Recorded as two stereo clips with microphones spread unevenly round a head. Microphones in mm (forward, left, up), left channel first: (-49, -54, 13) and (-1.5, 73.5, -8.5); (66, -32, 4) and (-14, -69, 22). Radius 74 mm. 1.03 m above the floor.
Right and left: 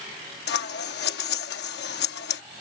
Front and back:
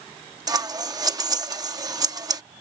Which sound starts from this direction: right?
Scissors, at 0.5 s.